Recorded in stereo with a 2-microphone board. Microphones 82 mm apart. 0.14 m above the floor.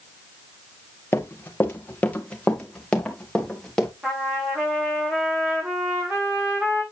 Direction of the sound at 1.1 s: 25° left (ahead or behind).